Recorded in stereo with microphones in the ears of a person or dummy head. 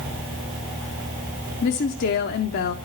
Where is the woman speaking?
50° left (ahead or behind), 0.5 m.